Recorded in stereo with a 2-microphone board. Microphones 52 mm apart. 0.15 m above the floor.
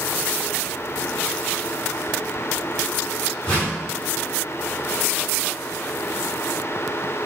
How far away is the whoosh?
About 1.7 m.